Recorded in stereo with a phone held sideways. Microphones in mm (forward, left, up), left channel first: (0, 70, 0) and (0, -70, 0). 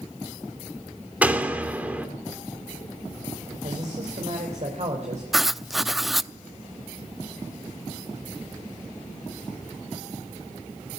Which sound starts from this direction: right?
A man speaking, at 3.6 s.